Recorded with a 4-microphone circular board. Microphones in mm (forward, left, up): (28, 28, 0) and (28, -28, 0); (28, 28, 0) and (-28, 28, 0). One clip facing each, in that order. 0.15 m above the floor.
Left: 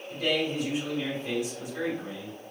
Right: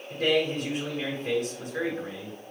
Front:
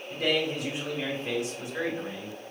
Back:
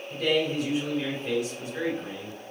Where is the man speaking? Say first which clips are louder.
Right 3 dB, back 2 dB; 60° right, 1.6 m.